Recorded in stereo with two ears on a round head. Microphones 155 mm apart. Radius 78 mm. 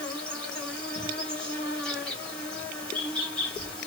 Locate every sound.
0.0 s an insect: 5° left (ahead or behind), 1.6 m